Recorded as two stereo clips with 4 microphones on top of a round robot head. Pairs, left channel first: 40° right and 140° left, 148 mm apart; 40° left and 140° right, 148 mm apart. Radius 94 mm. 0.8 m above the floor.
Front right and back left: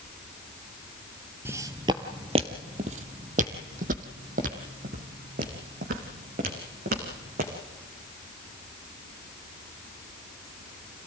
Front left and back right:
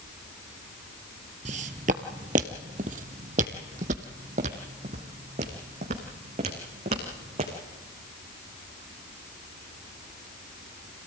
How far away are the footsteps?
About 0.9 m.